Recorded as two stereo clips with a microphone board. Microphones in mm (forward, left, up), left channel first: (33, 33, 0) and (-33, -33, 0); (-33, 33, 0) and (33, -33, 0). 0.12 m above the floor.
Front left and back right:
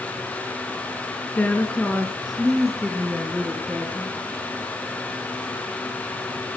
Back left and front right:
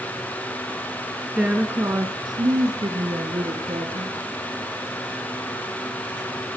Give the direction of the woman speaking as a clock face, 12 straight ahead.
11 o'clock.